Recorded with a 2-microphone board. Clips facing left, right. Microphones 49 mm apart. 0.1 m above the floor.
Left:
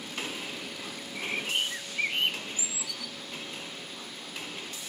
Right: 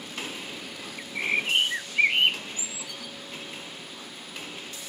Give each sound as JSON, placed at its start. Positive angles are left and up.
{"t": 1.0, "sound": "a bird", "side_deg": -50}